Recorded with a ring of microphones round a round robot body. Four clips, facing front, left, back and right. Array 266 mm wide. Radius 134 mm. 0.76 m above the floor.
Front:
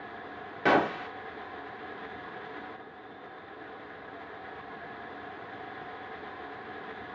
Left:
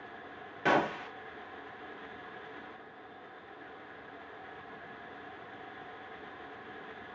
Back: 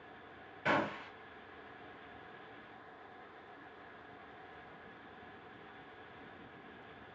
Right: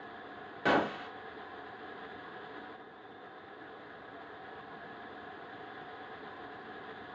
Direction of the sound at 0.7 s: 10° right.